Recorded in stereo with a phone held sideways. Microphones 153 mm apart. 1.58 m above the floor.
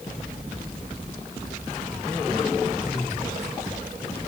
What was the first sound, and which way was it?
Only background noise.